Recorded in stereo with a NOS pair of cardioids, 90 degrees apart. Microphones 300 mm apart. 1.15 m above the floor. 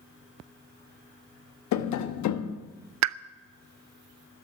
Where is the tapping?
70° left, 1.0 m.